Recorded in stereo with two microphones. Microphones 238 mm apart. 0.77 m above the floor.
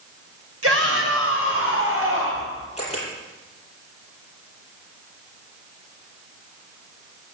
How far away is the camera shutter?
About 7 m.